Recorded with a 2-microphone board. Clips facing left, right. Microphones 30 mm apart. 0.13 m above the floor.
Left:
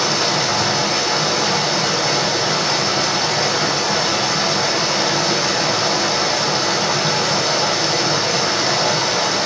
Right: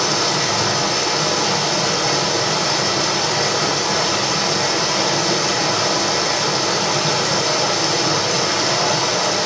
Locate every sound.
0.0 s running water: 10° left (ahead or behind), 0.7 m